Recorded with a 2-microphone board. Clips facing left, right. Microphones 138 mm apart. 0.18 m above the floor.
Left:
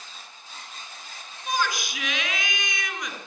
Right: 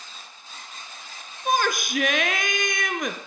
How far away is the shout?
About 2.5 m.